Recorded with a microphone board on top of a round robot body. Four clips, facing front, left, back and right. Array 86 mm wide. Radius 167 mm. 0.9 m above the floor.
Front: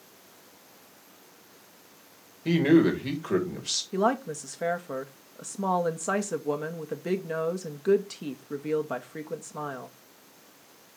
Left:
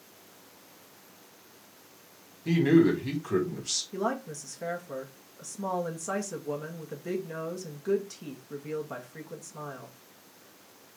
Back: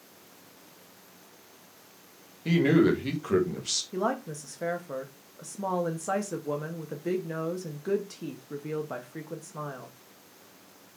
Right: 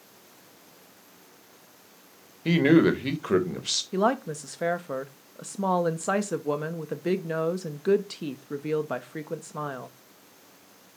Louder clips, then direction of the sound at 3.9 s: Right 7 dB, front 4 dB; 70° right.